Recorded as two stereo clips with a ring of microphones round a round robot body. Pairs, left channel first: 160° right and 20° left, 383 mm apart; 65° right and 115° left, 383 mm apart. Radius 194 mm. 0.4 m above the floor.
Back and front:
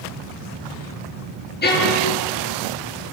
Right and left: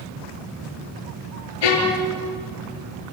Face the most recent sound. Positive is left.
turn(degrees=-90)